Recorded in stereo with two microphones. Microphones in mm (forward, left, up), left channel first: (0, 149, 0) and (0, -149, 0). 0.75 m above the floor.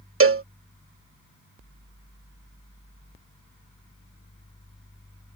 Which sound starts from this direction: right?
A cowbell, at 0.2 s.